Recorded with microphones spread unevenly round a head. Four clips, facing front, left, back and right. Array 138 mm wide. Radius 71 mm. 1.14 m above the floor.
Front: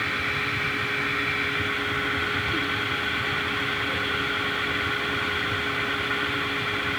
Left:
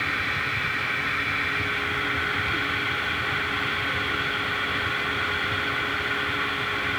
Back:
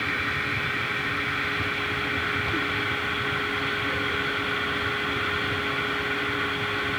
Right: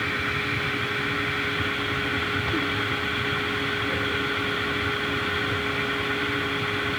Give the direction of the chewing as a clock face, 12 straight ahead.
No chewing in this recording.